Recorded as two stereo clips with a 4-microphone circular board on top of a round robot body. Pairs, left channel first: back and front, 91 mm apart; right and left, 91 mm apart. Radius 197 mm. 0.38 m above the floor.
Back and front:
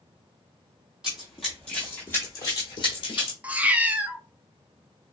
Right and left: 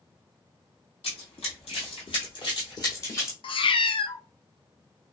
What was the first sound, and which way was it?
Running footsteps, 85° right.